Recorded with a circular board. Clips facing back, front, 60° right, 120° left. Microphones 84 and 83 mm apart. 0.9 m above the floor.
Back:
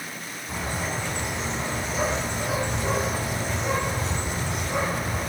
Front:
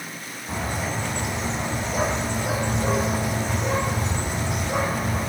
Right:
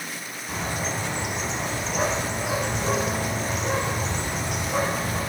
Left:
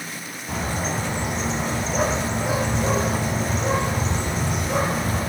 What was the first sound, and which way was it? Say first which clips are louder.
A bird: front 2 dB, left 3 dB; 70° left.